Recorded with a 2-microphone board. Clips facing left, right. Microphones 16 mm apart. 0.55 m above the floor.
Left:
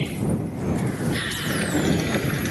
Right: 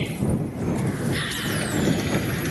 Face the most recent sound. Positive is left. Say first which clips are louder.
# left 2 dB
turn(degrees=20)  # may be behind; listen again after turning